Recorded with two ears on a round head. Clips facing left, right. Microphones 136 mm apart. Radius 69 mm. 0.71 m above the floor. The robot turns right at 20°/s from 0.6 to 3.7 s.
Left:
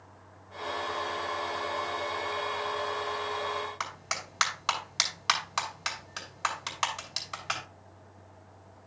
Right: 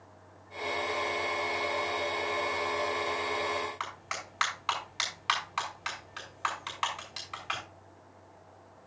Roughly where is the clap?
Left.